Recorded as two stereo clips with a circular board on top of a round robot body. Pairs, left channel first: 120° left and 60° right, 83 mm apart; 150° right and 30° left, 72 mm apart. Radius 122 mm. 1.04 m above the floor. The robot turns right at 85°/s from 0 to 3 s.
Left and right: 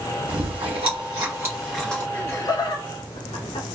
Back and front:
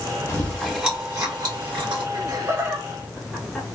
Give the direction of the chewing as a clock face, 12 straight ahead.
3 o'clock.